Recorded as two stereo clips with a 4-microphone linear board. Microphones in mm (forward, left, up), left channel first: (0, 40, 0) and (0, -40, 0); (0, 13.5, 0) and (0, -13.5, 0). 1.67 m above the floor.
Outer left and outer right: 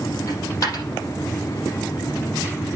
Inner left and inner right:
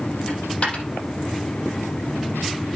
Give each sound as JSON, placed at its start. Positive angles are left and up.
{"t": 0.3, "sound": "a dropped coin", "side_deg": 45, "distance_m": 5.5}